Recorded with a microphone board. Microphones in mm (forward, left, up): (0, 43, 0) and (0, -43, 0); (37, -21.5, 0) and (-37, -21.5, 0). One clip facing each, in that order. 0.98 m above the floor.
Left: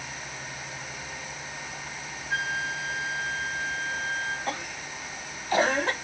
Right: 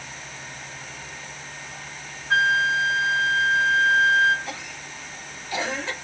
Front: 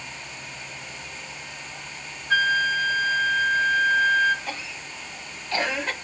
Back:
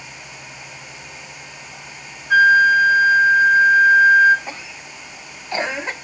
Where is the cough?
115° left, 0.8 m.